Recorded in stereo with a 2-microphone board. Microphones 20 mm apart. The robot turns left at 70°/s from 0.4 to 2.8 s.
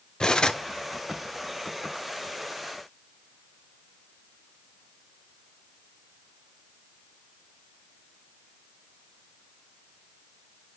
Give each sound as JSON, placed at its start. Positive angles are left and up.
{"t": 0.2, "sound": "cutlery clinking", "side_deg": 40, "distance_m": 0.8}